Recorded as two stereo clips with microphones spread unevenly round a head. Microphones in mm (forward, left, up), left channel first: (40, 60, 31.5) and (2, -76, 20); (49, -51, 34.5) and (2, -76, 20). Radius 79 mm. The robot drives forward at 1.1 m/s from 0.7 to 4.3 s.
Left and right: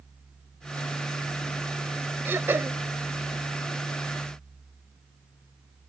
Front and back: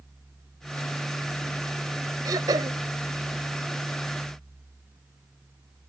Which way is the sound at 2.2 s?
175° left.